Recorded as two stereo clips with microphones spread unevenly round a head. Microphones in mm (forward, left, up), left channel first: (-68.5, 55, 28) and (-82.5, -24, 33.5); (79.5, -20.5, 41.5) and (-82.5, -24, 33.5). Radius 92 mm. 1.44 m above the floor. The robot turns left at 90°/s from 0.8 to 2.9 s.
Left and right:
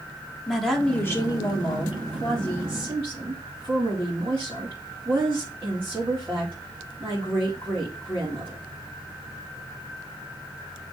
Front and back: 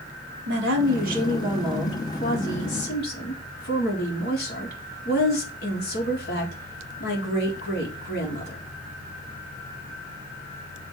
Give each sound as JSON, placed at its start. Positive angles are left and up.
{"t": 0.5, "sound": "a woman speaking", "azimuth_deg": 165, "distance_m": 2.5}